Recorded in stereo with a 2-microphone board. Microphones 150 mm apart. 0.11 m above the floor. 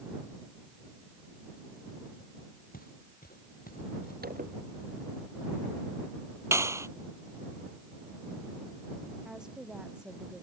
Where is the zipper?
90° right.